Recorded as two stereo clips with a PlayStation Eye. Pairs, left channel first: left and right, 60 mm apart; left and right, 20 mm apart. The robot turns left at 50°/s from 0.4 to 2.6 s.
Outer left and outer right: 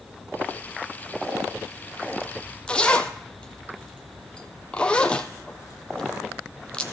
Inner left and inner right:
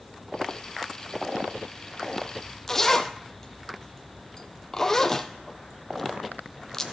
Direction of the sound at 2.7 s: 15° left (ahead or behind).